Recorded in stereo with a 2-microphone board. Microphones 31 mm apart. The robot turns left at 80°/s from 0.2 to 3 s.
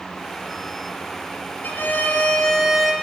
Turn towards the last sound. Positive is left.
turn(degrees=-15)